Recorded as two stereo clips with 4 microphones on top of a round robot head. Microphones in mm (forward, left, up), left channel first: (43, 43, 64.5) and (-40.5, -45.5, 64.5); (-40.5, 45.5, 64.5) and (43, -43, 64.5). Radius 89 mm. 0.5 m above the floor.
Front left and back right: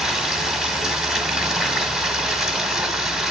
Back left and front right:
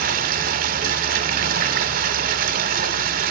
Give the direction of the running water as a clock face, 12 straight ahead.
2 o'clock.